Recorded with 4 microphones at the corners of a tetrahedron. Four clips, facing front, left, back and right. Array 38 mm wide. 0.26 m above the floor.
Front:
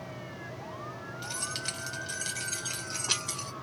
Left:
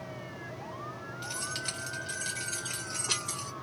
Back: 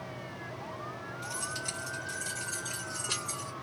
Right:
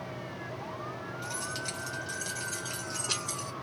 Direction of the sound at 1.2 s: 30° left.